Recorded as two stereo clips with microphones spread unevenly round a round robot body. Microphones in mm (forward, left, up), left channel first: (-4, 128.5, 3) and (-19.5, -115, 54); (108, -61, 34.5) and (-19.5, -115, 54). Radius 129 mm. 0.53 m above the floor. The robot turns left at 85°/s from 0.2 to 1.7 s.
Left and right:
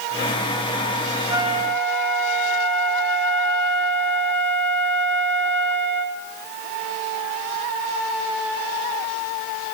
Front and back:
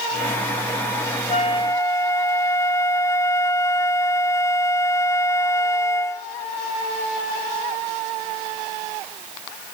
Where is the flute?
15° right, 1.0 m; by 6.3 s 45° right, 1.0 m.